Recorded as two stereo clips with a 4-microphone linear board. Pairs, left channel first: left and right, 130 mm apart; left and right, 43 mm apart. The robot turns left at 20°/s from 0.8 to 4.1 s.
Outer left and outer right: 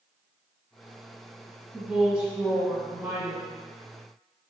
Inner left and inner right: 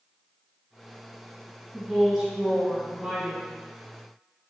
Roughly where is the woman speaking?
Ahead.